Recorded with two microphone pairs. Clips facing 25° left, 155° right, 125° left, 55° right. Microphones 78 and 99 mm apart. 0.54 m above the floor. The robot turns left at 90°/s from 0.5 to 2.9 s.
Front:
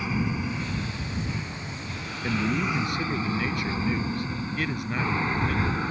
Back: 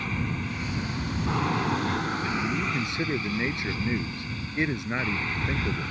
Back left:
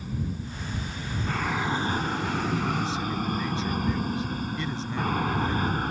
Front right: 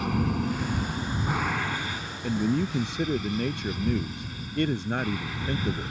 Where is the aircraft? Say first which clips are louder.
Front 3 dB, front right 7 dB; 55° right; by 5.9 s 90° left.